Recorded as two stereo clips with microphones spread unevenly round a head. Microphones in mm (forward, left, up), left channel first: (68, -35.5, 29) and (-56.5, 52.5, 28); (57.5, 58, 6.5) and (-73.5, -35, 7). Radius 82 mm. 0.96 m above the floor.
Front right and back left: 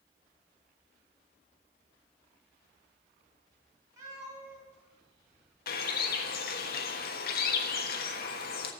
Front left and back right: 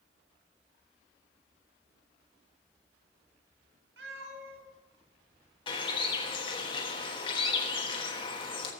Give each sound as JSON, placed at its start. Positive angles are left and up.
{"t": 4.0, "sound": "a cat meowing", "azimuth_deg": -145, "distance_m": 4.0}
{"t": 5.7, "sound": "a bird", "azimuth_deg": -25, "distance_m": 1.3}